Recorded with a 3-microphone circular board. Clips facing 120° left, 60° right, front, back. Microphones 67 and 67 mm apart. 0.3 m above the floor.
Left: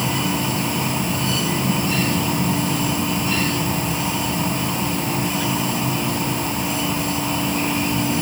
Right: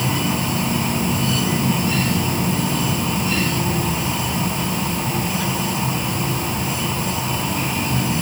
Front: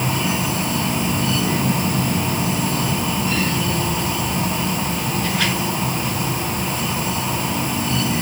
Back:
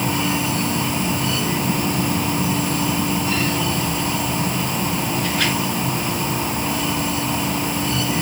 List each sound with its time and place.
Only background noise.